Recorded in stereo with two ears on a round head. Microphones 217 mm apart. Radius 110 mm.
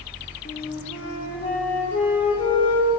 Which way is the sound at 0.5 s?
25° left (ahead or behind).